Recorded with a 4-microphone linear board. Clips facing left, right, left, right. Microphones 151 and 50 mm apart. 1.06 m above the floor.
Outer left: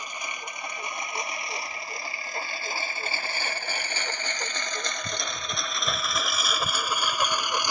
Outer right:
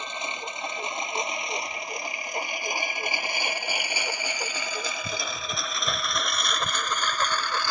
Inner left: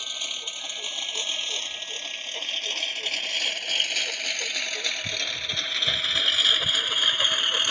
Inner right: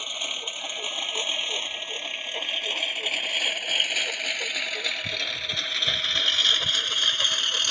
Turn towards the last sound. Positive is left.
turn(degrees=20)  # may be behind; listen again after turning